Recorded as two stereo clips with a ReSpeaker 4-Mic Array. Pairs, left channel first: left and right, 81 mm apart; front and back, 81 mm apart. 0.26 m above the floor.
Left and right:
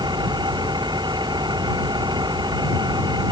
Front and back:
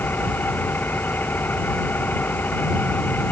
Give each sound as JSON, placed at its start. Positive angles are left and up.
{"t": 0.0, "sound": "an engine running", "azimuth_deg": -65}